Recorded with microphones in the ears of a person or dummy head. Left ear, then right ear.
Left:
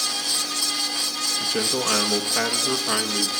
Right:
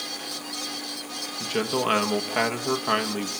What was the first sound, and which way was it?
A man speaking, 30° right (ahead or behind).